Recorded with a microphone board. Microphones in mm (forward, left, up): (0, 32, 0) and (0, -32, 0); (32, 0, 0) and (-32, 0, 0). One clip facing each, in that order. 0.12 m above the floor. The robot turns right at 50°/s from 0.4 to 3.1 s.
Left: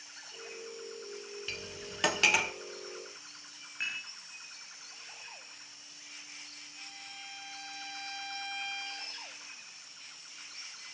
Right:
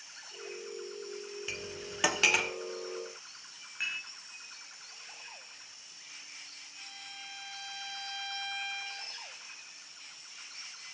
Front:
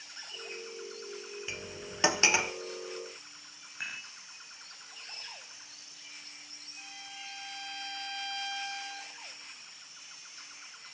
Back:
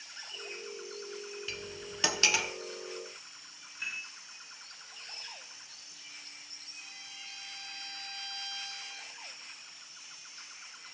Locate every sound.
1.5 s cutlery clinking: 40° right, 0.8 m; by 2.5 s 10° left, 0.8 m
3.8 s dishes clattering: straight ahead, 6.5 m
6.8 s a violin: 5° left, 5 m